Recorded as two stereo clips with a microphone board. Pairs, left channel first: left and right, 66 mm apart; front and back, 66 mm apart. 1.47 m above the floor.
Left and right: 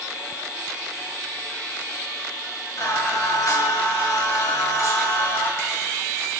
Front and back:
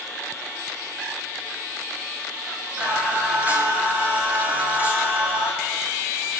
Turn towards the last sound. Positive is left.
turn(degrees=115)